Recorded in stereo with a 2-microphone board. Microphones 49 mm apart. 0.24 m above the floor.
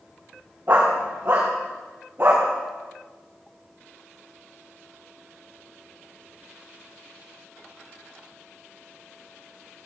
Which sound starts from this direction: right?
A dog barking, at 0.7 s.